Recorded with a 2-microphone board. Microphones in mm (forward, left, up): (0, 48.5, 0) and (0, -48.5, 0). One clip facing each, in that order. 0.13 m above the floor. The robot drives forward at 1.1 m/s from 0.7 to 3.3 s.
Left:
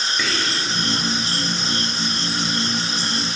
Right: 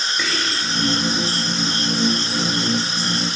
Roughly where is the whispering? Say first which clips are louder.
Even; centre.